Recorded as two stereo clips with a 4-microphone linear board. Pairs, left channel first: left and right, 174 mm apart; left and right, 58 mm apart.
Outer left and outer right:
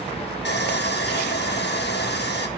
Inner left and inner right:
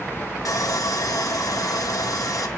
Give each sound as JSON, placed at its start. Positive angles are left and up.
{"t": 0.5, "sound": "sawing", "side_deg": 75, "distance_m": 2.0}